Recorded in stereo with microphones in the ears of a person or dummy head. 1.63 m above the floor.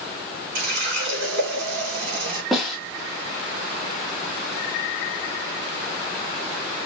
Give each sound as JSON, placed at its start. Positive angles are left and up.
{"t": 0.6, "sound": "a running tap", "side_deg": -65, "distance_m": 3.0}
{"t": 2.5, "sound": "a snare drum", "side_deg": 0, "distance_m": 1.2}